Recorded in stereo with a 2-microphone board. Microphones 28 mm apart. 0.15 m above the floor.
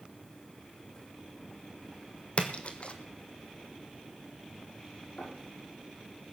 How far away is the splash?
About 1.2 m.